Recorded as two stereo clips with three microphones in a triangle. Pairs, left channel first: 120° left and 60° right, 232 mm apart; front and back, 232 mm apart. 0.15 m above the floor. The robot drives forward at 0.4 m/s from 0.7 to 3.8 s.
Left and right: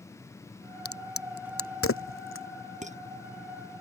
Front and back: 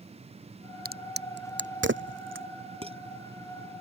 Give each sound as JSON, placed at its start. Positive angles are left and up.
{"t": 0.8, "sound": "a crack", "azimuth_deg": 130}
{"t": 2.8, "sound": "dishes clattering", "azimuth_deg": -115}